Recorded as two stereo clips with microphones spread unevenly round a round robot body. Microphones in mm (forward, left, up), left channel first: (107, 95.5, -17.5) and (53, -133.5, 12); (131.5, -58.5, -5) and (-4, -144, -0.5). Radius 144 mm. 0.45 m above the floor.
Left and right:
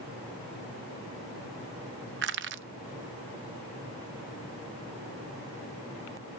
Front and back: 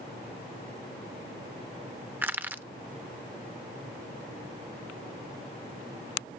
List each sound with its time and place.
2.2 s crushing: 70° right, 0.6 m